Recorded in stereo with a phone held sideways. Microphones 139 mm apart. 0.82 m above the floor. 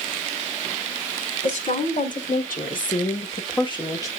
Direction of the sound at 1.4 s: 60° left (ahead or behind).